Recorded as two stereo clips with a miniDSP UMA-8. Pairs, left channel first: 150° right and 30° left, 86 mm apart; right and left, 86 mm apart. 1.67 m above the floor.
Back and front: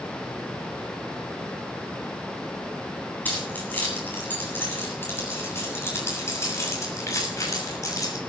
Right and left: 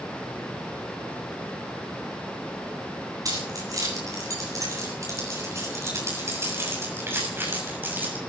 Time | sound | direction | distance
3.2 | keys jangling | 140° left | 8 m